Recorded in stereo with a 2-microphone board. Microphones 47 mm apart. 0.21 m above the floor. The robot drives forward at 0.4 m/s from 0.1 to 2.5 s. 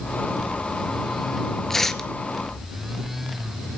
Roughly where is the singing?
No singing in this recording.